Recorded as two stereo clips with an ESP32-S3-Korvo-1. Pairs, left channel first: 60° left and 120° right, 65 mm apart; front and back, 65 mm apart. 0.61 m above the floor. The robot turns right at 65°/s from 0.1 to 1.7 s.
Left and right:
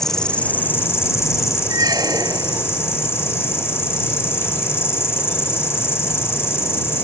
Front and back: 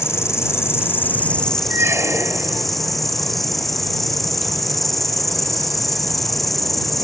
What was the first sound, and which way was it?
An insect, 20° right.